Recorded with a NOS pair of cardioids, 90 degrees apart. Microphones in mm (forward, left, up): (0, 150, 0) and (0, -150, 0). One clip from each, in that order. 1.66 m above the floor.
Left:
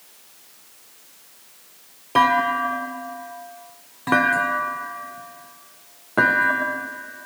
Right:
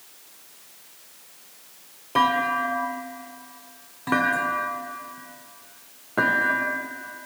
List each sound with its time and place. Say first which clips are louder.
2.1 s a clunk: left 3 dB; 20° left, 0.6 m